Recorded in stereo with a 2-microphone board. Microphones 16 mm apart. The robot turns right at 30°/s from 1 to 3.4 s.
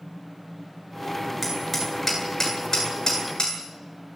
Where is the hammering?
5° right (ahead or behind), 9.5 m; by 3.6 s 55° left (ahead or behind), 9.5 m.